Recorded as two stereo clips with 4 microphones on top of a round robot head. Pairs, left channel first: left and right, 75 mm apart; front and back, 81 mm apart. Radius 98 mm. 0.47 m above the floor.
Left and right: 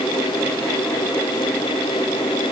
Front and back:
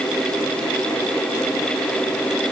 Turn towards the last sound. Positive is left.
No sound to turn to.